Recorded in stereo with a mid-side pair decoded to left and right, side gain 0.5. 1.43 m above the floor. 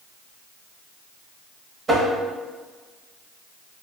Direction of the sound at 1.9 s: 30° right.